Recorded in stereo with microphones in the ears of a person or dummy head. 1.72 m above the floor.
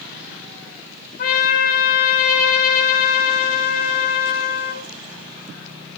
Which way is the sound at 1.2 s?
55° left (ahead or behind).